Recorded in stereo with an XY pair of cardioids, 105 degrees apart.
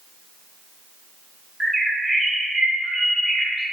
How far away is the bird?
About 0.7 m.